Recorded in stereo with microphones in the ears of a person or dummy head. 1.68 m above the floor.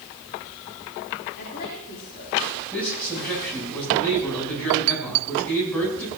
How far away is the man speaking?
About 10 m.